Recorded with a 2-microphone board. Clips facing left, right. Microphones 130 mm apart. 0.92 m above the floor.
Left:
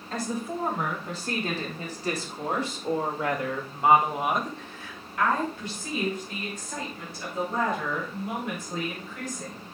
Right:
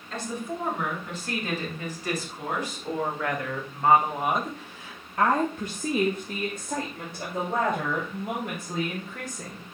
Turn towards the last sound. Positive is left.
turn(degrees=-55)  # may be behind; listen again after turning